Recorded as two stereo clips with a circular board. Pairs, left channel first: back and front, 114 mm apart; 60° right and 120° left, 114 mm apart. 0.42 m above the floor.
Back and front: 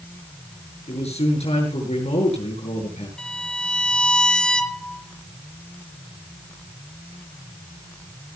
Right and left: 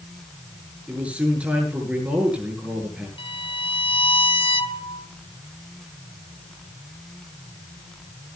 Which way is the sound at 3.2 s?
95° right.